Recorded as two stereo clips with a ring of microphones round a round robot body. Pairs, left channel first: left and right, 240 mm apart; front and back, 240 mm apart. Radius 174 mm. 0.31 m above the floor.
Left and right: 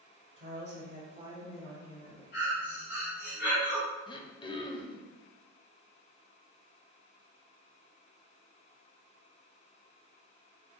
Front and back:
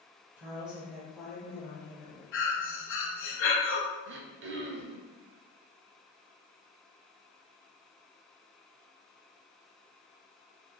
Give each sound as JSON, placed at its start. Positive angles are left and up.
{"t": 0.4, "sound": "a woman speaking", "azimuth_deg": -95, "distance_m": 1.4}
{"t": 2.3, "sound": "breathing", "azimuth_deg": 35, "distance_m": 1.0}
{"t": 4.1, "sound": "throat clearing", "azimuth_deg": 160, "distance_m": 0.6}